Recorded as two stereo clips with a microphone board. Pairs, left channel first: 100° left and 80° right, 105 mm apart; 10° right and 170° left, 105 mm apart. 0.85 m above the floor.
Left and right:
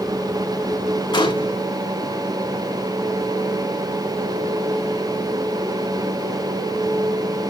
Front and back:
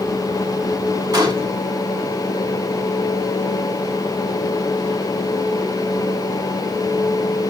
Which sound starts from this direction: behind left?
A gunshot, at 1.1 s.